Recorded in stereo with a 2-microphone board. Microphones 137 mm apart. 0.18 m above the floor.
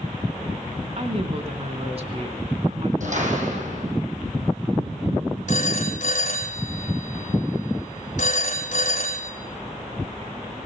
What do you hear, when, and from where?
1.0 s a woman speaking: 45° right (ahead or behind), 2 m
3.0 s a door slam: 60° right (ahead or behind), 6 m
5.5 s a phone ringing: 60° left (ahead or behind), 5 m